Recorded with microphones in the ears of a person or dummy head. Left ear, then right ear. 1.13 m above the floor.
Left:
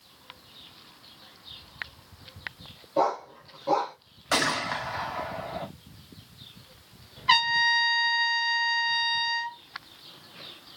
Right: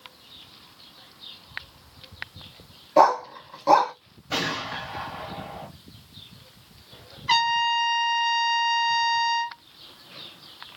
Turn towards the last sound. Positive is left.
turn(degrees=15)  # may be behind; listen again after turning